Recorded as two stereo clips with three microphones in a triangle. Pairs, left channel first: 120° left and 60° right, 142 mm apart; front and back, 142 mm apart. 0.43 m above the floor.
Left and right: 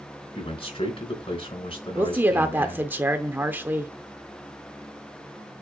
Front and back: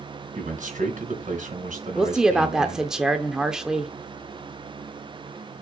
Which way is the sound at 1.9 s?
105° right.